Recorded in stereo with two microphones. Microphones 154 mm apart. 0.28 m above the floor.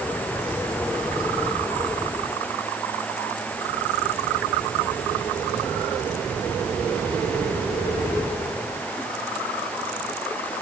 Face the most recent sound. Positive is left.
No sound to turn to.